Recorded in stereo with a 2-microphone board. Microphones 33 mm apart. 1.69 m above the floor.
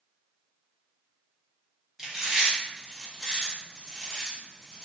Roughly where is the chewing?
Centre.